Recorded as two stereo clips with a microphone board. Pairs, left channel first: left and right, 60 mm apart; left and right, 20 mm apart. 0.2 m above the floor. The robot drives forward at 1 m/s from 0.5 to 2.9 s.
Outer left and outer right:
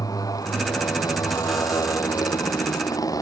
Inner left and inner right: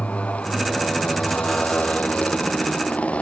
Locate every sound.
0.0 s a motorcycle: 80° left